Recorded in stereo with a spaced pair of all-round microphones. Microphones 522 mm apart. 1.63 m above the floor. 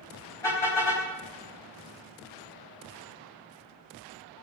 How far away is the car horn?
About 5 m.